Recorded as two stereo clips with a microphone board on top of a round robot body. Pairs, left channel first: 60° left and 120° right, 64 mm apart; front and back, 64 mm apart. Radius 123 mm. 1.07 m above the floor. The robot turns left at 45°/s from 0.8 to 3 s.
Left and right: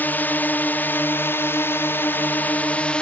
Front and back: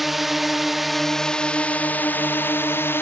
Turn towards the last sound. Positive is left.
turn(degrees=-5)